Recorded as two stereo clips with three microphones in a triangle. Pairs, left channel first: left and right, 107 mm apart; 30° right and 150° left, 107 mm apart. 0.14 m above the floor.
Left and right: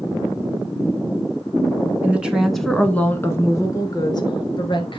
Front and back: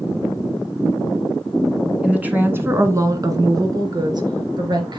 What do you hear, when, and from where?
2.0 s a woman speaking: 145° right, 1.2 m; by 5.0 s 115° left, 2 m